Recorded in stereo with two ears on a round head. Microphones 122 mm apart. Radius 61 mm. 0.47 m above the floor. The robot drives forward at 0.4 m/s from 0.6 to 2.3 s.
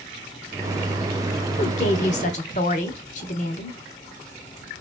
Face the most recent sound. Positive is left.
turn(degrees=55)  # may be behind; listen again after turning